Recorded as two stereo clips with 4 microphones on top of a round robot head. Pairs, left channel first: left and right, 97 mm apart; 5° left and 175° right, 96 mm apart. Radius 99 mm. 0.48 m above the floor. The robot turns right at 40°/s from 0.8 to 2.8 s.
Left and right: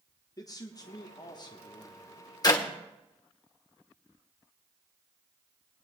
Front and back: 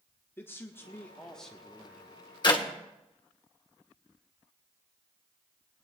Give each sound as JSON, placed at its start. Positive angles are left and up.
{"t": 0.4, "sound": "a man speaking", "azimuth_deg": 65, "distance_m": 1.1}
{"t": 2.4, "sound": "a clap", "azimuth_deg": 45, "distance_m": 2.0}